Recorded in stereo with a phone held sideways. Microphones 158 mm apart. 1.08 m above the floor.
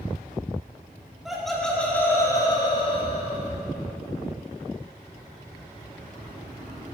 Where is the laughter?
5° right (ahead or behind), 3 m; by 3.5 s 50° left (ahead or behind), 3 m.